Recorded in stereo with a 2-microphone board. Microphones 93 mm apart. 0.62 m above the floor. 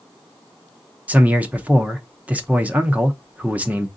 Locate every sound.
1.1 s a man speaking: 15° right (ahead or behind), 0.6 m